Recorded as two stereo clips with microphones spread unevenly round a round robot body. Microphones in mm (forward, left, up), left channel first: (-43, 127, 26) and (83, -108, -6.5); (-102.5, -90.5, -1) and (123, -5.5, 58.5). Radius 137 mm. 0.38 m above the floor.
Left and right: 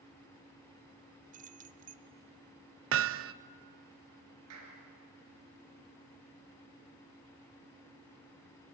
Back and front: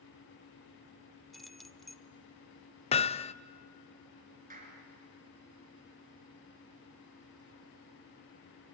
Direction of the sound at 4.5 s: 35° right.